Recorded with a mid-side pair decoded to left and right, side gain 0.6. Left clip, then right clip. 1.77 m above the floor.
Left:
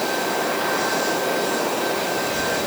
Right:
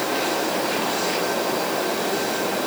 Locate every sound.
Only background noise.